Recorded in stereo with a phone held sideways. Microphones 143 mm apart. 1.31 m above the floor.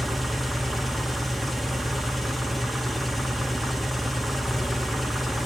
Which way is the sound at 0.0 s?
Centre (ahead or behind).